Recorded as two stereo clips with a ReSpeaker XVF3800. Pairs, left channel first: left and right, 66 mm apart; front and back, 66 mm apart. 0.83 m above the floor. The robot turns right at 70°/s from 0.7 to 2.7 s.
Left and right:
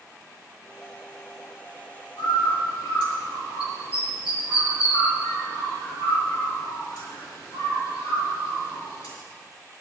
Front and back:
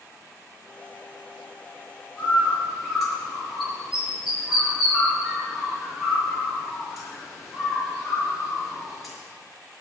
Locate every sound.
2.2 s a bird: 50° left, 5.5 m; by 9.1 s 90° left, 5.5 m